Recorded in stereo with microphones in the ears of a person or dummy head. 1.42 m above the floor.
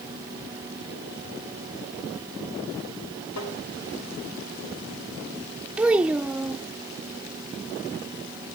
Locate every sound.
3.4 s tapping: 80° left, 5 m
5.8 s a child speaking: 10° right (ahead or behind), 0.6 m